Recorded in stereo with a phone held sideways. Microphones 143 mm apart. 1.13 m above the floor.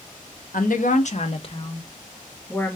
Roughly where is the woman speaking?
Left.